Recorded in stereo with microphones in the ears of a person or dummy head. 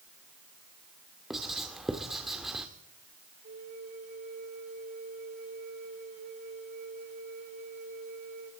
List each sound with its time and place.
1.3 s writing: 5° right (ahead or behind), 2 m
3.4 s a flute: 45° right (ahead or behind), 2.0 m